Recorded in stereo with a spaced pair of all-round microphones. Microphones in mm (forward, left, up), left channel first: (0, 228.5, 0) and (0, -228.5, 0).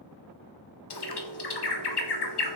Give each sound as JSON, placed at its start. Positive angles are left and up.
{"t": 0.9, "sound": "a bird", "side_deg": 60, "distance_m": 0.5}